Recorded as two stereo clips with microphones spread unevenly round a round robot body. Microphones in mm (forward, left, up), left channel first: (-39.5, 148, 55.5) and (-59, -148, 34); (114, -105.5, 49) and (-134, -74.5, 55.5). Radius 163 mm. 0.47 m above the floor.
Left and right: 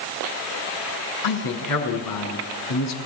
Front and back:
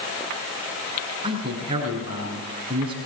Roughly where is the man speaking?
Left.